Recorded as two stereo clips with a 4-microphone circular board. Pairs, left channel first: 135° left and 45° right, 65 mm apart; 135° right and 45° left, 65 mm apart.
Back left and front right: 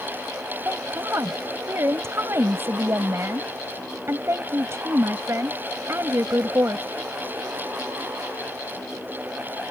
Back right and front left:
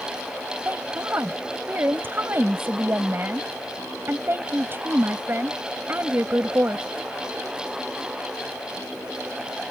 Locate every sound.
0.7 s a woman speaking: 5° right